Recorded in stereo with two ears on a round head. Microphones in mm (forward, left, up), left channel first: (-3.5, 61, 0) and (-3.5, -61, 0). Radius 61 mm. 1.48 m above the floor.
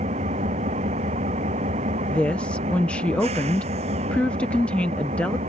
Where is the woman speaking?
10° left (ahead or behind).